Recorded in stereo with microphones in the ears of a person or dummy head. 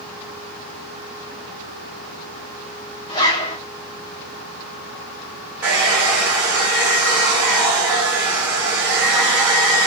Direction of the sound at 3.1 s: 25° left (ahead or behind).